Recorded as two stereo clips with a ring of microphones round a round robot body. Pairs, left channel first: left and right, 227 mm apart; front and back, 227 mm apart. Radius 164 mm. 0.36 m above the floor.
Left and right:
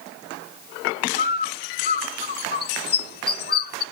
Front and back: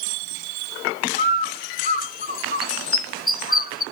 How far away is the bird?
About 1.3 m.